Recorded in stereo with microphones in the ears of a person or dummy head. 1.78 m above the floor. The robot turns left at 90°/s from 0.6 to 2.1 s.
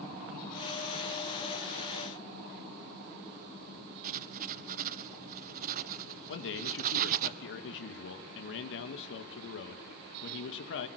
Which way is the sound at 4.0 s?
45° right (ahead or behind).